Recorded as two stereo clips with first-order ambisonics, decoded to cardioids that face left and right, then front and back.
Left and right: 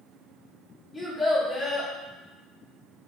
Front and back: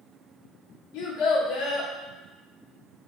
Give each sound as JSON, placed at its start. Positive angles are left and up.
{"t": 0.9, "sound": "a child speaking", "azimuth_deg": 0, "distance_m": 1.2}